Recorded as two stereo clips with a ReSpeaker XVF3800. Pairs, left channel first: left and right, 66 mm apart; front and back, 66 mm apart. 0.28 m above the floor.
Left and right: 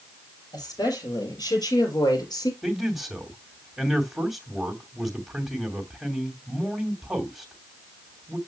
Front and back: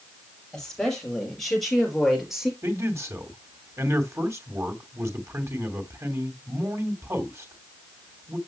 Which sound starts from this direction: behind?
A man speaking, at 2.6 s.